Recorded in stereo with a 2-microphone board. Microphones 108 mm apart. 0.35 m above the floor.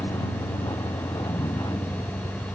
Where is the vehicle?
35° left (ahead or behind).